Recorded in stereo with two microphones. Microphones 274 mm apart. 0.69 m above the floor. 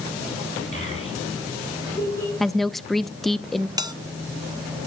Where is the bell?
15° right (ahead or behind), 0.8 m.